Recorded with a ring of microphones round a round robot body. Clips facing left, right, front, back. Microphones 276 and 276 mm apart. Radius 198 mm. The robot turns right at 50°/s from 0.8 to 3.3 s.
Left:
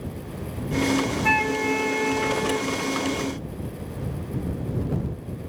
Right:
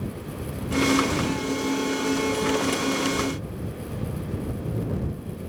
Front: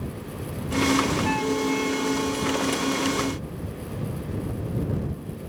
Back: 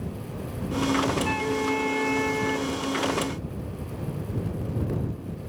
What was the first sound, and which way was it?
A flute, 95° left.